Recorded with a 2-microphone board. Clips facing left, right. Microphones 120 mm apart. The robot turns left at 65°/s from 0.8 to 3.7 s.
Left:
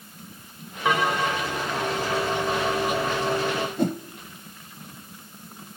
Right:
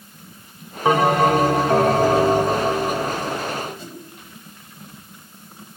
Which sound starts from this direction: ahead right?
A bell, at 0.8 s.